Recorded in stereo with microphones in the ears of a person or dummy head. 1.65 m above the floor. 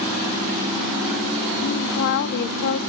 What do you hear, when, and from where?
1.6 s a woman speaking: 55° left (ahead or behind), 0.6 m